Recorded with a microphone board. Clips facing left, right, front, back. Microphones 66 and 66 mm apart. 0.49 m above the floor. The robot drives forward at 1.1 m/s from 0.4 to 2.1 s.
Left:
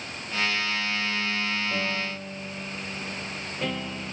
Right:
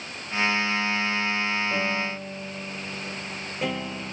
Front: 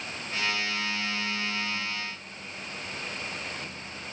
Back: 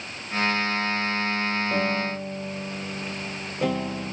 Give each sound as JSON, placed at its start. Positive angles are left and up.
{"t": 1.7, "sound": "a piano", "azimuth_deg": -170}